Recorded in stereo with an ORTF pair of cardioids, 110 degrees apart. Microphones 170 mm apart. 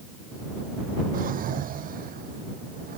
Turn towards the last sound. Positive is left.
turn(degrees=-55)